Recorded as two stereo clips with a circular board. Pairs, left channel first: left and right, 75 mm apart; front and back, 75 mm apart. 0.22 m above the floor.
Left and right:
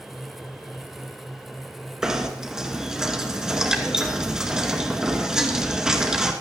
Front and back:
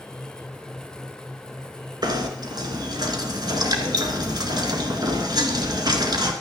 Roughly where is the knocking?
Behind.